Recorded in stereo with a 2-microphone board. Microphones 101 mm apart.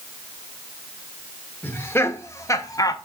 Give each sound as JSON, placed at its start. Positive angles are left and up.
{"t": 1.6, "sound": "laughter", "side_deg": 20, "distance_m": 1.6}